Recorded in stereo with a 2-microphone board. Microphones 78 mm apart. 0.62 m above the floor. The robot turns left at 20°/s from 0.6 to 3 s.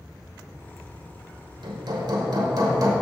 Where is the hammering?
75° right (ahead or behind), 1.2 m; by 2.9 s 50° right (ahead or behind), 1.2 m.